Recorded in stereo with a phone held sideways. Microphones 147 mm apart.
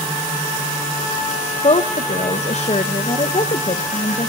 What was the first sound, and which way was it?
A woman speaking, 50° left (ahead or behind).